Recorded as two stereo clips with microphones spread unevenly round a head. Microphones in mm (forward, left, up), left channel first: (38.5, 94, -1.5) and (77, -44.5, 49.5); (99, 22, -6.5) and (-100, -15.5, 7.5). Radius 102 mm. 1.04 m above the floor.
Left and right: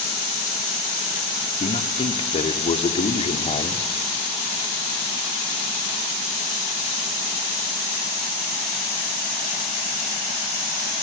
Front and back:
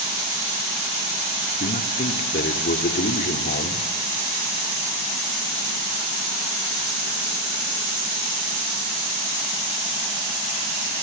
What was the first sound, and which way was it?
A man speaking, 60° left.